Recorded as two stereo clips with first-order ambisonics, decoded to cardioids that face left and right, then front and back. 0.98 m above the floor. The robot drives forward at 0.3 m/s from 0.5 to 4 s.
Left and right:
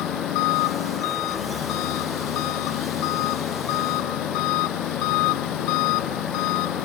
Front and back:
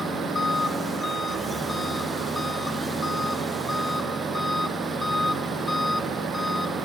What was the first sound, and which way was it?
An engine running, 80° left.